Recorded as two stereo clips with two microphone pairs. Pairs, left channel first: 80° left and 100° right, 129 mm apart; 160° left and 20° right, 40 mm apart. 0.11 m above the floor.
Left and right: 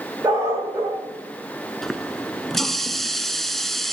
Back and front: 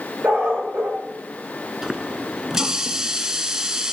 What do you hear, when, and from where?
0.2 s a dog barking: 40° right, 6 m
1.8 s a running tap: 5° right, 0.8 m